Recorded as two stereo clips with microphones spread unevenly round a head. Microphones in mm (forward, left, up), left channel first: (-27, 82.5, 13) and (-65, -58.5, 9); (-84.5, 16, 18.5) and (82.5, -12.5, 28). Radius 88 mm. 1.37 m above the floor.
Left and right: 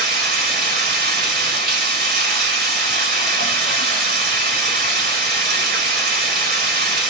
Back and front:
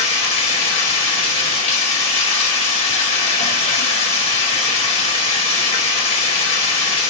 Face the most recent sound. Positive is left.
turn(degrees=-130)